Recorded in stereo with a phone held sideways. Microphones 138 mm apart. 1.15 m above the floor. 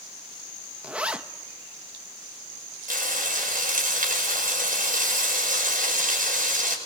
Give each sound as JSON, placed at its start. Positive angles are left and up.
{"t": 0.8, "sound": "a zipper", "side_deg": -10, "distance_m": 1.0}
{"t": 2.9, "sound": "frying", "side_deg": -80, "distance_m": 6.0}